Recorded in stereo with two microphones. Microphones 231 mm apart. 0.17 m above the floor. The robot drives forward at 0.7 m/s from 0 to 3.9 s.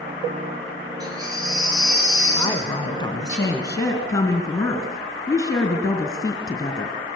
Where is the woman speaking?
20° left (ahead or behind), 1.5 m; by 7.0 s 15° left (ahead or behind), 2 m.